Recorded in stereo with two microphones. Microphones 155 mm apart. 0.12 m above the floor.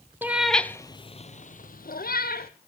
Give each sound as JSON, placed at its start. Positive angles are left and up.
{"t": 0.2, "sound": "a cat meowing", "side_deg": -10, "distance_m": 0.8}